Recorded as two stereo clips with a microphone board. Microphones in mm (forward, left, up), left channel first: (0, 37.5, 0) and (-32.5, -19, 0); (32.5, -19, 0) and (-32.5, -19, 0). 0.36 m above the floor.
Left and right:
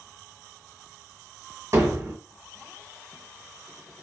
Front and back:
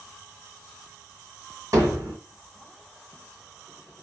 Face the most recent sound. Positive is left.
turn(degrees=-155)